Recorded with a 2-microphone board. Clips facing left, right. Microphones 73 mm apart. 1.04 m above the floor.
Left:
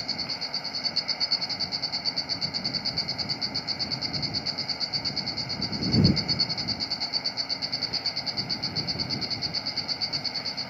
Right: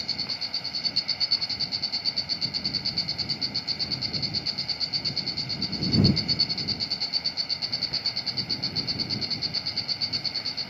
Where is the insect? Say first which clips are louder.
Left 2 dB; 25° left (ahead or behind).